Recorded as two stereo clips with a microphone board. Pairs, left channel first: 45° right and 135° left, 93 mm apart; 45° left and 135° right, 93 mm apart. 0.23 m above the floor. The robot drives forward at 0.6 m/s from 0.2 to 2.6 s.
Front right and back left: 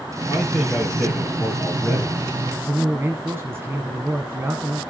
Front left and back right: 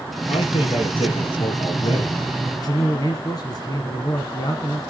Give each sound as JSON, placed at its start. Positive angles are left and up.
{"t": 0.3, "sound": "a man speaking", "azimuth_deg": 35, "distance_m": 4.0}
{"t": 2.5, "sound": "a man speaking", "azimuth_deg": 75, "distance_m": 1.7}